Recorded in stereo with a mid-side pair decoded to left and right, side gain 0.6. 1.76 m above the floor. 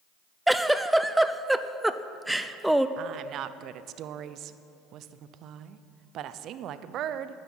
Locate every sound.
0.5 s a giggle: 5° right, 0.6 m
3.0 s a woman speaking: 55° right, 0.7 m